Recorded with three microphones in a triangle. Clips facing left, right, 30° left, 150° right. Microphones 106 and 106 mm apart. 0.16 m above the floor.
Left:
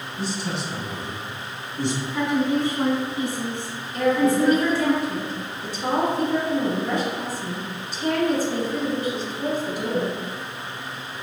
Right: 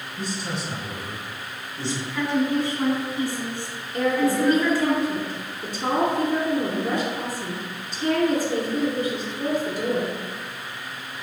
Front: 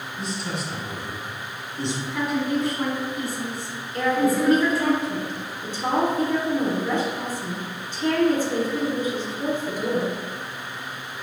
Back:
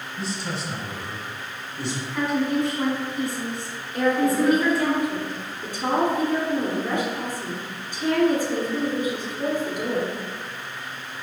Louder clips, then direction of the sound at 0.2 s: Left 2 dB, even; 100° right.